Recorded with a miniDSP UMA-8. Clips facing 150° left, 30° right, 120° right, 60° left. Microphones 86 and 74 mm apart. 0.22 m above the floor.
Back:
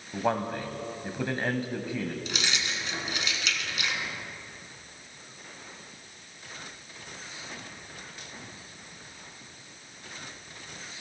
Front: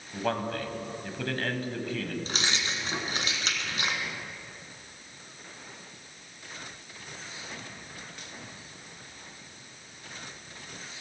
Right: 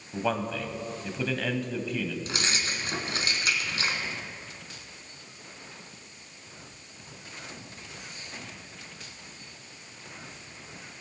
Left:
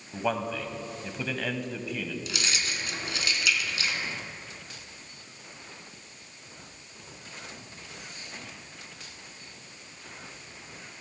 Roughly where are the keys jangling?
Right.